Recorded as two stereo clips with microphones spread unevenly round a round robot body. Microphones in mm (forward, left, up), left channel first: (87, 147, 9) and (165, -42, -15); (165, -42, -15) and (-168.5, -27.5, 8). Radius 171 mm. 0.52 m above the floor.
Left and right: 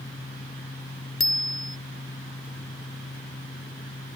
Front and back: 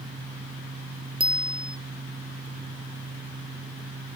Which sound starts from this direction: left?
A bicycle bell, at 1.2 s.